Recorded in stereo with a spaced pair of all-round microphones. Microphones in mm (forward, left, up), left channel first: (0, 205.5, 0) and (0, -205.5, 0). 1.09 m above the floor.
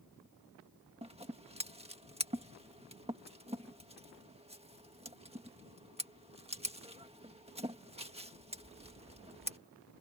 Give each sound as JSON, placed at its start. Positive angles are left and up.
{"t": 1.0, "sound": "scissors", "side_deg": -15}